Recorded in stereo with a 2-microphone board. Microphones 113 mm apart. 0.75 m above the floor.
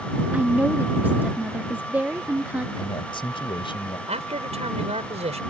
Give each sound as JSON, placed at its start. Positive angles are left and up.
{"t": 0.3, "sound": "a woman speaking", "side_deg": -15}
{"t": 2.8, "sound": "a man speaking", "side_deg": 50}
{"t": 4.1, "sound": "a man speaking", "side_deg": -75}